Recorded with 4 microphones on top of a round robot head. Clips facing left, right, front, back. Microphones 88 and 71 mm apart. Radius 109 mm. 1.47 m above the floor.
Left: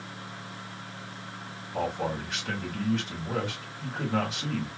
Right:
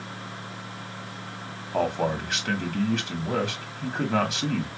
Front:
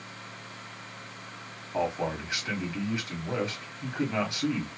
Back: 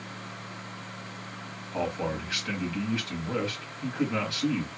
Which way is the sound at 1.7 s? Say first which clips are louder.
Right 5 dB, front 1 dB; 70° right.